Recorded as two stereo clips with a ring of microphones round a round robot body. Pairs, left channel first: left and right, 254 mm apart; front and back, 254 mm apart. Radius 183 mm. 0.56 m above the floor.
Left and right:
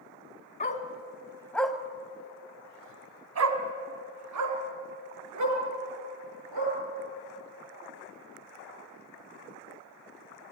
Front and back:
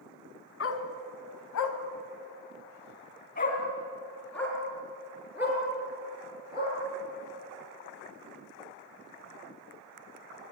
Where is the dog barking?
30° left, 2.5 m; by 6.7 s 100° right, 5.5 m.